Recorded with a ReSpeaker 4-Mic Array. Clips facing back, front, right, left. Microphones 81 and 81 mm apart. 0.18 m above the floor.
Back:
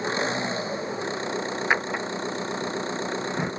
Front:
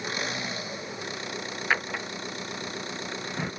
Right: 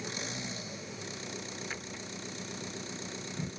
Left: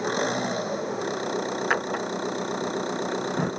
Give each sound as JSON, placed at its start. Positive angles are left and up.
{"t": 0.0, "sound": "an engine running", "azimuth_deg": 120}
{"t": 1.7, "sound": "a drawer", "azimuth_deg": 105}